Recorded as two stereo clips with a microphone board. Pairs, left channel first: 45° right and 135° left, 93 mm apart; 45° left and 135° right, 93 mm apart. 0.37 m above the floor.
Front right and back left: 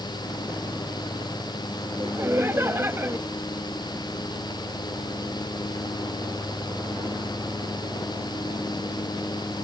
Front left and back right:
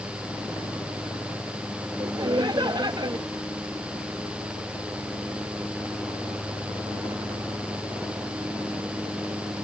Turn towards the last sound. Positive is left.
turn(degrees=-165)